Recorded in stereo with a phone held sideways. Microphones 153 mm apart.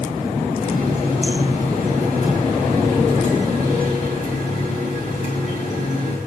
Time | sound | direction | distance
0.6 | a running tap | 45° left (ahead or behind) | 6 m